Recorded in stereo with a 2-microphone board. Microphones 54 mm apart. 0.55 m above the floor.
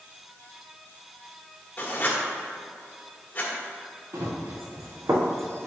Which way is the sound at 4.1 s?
80° right.